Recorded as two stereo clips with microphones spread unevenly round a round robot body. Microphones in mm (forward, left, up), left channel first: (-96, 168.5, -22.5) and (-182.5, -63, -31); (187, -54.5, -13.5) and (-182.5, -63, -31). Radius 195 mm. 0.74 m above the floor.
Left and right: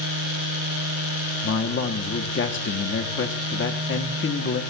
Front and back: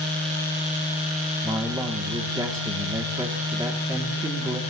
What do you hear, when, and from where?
1.4 s a man speaking: 100° left, 1.3 m